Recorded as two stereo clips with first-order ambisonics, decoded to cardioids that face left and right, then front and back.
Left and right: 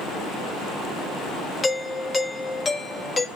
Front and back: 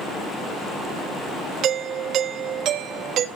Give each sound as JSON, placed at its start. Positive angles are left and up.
{"t": 1.6, "sound": "a doorbell", "azimuth_deg": 155, "distance_m": 1.2}